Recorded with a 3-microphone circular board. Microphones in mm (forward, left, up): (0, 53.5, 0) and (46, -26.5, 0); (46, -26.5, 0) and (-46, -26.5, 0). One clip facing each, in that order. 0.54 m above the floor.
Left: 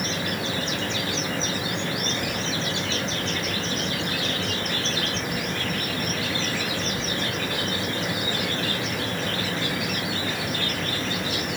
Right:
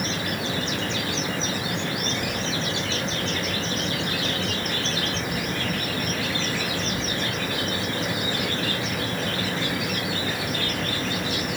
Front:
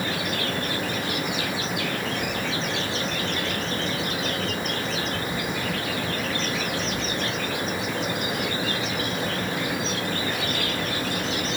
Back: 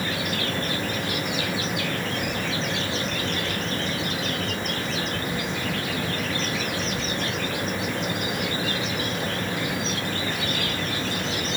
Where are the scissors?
I don't hear scissors.